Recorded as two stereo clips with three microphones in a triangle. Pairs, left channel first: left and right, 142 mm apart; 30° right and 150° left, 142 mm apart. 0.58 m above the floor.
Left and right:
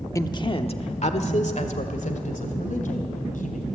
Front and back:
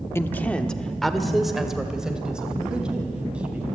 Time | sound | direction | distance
0.1 | a woman speaking | 35° left | 0.8 m